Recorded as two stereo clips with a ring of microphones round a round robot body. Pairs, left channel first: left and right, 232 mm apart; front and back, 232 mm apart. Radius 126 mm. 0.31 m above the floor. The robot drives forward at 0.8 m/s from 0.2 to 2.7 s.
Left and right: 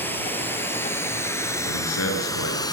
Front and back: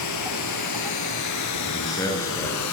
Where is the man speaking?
75° left, 5.5 m; by 2.6 s 85° left, 5 m.